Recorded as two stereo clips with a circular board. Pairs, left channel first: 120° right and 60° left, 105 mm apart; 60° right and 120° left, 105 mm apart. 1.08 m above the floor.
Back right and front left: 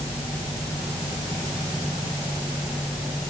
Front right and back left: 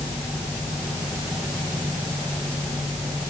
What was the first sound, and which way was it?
Only background noise.